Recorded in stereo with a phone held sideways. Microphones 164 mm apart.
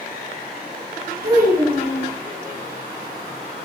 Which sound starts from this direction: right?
A child speaking, at 1.2 s.